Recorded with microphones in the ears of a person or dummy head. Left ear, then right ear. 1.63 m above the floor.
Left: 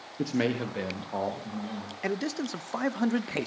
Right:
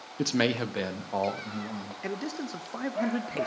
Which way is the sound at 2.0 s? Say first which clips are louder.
Left 4 dB; 20° left (ahead or behind).